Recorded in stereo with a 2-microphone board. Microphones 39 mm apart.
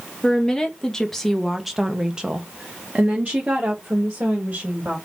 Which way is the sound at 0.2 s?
15° left (ahead or behind).